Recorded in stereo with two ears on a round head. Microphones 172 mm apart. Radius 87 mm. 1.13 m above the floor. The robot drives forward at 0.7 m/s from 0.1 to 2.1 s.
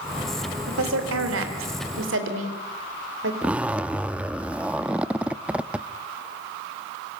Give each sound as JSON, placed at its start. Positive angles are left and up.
{"t": 0.7, "sound": "a woman speaking", "side_deg": -80, "distance_m": 3.5}
{"t": 3.4, "sound": "a zipper", "side_deg": -5, "distance_m": 0.6}